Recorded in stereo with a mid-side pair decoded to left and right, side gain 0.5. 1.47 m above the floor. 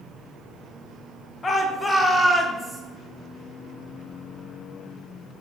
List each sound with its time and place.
1.4 s a shout: 35° left, 0.7 m; by 2.8 s 5° right, 1.2 m